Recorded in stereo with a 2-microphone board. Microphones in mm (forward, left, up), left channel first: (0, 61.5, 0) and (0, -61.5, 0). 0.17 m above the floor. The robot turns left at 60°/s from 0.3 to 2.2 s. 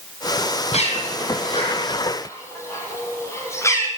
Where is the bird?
65° left (ahead or behind), 5 m; by 3.9 s 25° left (ahead or behind), 5 m.